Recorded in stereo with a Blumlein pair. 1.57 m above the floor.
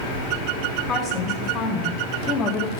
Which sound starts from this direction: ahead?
A woman speaking, at 0.9 s.